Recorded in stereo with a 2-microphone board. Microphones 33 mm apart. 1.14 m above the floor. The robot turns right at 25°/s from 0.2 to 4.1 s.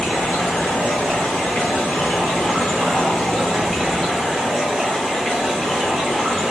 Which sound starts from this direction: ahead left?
Running water, at 0.0 s.